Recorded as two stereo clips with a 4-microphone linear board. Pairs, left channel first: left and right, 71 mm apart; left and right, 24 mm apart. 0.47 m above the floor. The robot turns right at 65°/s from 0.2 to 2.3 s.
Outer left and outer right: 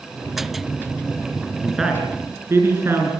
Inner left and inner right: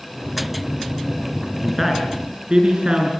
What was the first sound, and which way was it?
A man speaking, 5° left (ahead or behind).